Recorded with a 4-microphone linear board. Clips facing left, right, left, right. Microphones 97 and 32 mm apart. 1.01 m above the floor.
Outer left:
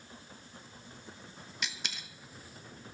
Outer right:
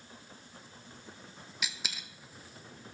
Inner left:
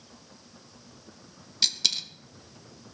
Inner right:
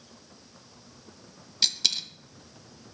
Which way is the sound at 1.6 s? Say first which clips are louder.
Even, even; 5° right (ahead or behind).